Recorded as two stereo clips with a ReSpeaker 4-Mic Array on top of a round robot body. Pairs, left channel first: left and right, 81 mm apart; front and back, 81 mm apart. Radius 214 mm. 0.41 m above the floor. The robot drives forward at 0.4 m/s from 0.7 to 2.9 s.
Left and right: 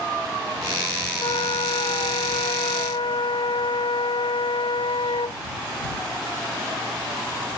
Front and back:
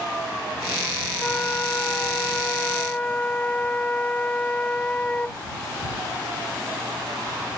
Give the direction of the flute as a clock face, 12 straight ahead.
10 o'clock.